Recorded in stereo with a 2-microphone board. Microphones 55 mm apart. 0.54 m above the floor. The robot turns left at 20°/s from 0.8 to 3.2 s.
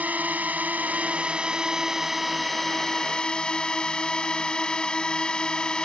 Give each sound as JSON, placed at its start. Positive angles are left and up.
{"t": 0.0, "sound": "a drone", "azimuth_deg": -150}